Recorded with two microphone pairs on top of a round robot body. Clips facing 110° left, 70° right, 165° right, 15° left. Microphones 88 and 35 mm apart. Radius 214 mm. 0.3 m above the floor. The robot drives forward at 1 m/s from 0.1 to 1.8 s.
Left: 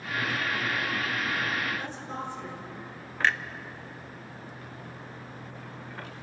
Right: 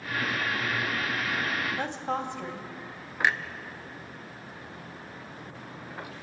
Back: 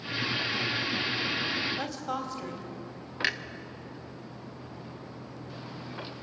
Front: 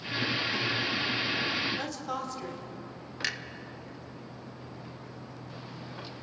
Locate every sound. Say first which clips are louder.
1.8 s a woman speaking: right 5 dB, back 1 dB; 85° right, 3 m
3.2 s a clunk: even, back 4 dB; 135° right, 1.2 m